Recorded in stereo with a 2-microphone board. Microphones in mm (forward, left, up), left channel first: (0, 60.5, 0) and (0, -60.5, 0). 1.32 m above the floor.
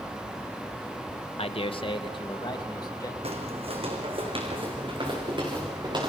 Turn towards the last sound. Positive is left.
turn(degrees=-40)  # may be behind; listen again after turning